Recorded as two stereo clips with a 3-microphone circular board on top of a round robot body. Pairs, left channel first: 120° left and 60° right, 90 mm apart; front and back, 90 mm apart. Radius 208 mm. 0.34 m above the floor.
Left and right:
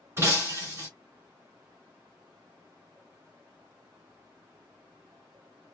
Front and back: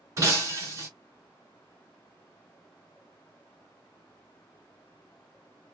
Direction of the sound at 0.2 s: 120° right.